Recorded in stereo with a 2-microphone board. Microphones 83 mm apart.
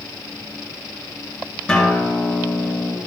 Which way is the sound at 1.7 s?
10° left (ahead or behind).